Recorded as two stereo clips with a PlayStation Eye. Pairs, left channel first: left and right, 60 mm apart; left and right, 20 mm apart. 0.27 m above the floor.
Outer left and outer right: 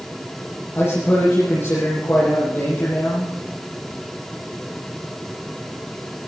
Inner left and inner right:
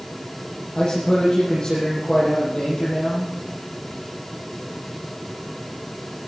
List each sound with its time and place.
0.8 s a man speaking: 30° left (ahead or behind), 7.5 m